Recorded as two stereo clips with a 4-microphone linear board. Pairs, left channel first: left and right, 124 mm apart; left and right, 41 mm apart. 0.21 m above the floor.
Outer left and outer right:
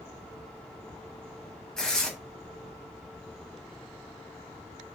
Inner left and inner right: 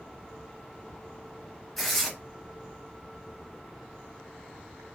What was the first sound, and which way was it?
Tearing paper, 5° left (ahead or behind).